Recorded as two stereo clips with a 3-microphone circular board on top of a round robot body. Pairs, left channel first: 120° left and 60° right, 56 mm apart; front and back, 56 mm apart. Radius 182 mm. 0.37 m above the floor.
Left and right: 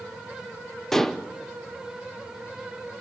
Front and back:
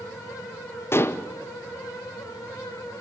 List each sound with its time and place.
0.9 s dishes clattering: 40° left, 1.0 m